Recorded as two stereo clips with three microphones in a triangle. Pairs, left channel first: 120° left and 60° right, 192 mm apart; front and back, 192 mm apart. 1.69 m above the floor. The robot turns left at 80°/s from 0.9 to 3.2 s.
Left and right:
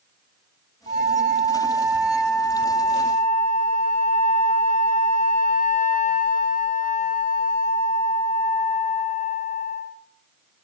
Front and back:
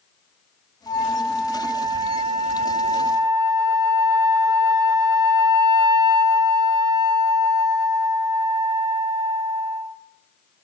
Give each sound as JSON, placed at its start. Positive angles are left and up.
{"t": 0.9, "sound": "a flute", "azimuth_deg": -55, "distance_m": 0.6}